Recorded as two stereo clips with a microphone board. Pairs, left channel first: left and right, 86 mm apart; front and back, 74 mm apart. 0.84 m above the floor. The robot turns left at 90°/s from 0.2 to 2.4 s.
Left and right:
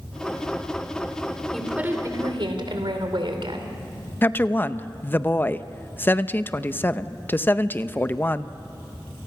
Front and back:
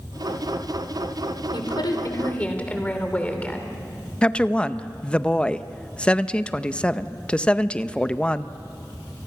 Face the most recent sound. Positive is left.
turn(degrees=60)